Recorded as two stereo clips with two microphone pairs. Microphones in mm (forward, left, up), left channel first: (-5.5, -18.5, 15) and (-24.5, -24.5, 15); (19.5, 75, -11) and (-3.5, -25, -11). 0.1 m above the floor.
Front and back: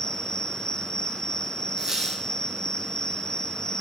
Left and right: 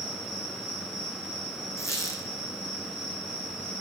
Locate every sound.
0.0 s an insect: 35° left, 1.0 m
1.8 s a squeak: 140° left, 1.9 m